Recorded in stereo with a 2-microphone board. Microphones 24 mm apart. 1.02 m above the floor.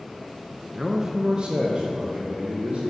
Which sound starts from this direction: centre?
A man speaking, at 0.7 s.